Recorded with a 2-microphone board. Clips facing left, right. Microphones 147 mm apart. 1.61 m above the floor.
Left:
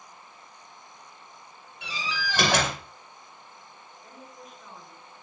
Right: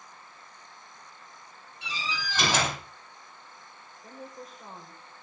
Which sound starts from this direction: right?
A woman speaking, at 4.0 s.